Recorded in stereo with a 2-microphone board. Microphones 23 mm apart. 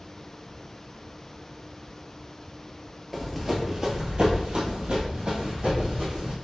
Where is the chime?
I don't hear a chime.